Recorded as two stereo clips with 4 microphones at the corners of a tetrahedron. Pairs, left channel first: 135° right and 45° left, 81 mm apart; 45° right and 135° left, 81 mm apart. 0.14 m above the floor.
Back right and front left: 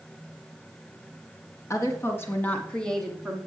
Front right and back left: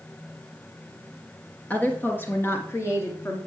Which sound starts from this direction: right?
A woman speaking, at 1.7 s.